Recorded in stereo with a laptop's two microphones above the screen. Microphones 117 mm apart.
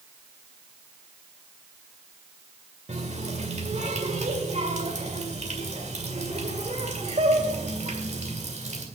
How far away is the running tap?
About 2 m.